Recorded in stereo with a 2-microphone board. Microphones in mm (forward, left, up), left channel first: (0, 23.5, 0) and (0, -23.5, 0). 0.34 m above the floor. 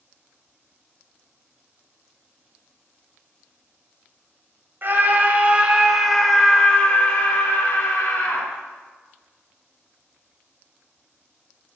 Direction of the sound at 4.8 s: 45° right (ahead or behind).